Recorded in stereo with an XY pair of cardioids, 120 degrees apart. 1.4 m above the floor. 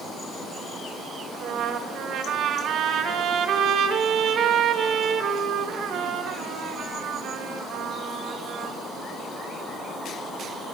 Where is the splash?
No splash in this recording.